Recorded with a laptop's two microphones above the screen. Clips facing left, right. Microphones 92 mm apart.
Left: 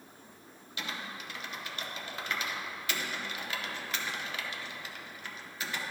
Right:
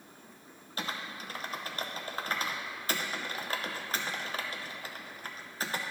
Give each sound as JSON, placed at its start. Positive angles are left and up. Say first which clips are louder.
{"t": 0.8, "sound": "typing on a keyboard", "louder": "right 2 dB", "side_deg": -35, "distance_m": 0.7}